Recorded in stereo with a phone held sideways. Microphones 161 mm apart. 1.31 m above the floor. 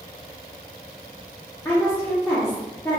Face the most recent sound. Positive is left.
turn(degrees=15)  # may be behind; listen again after turning